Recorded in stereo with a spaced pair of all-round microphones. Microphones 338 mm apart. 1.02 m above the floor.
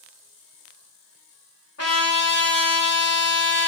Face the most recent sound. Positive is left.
turn(degrees=45)  # may be behind; listen again after turning